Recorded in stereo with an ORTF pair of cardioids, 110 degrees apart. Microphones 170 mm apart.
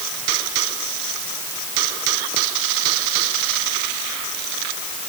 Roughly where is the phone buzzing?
No phone buzzing in this recording.